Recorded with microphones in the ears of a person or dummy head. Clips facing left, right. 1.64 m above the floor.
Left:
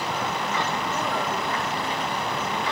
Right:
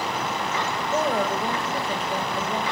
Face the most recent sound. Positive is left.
turn(degrees=-30)  # may be behind; listen again after turning